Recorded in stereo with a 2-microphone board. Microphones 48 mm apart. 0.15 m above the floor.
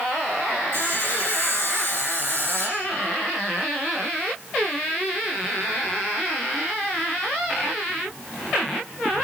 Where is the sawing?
55° left (ahead or behind), 6.5 m.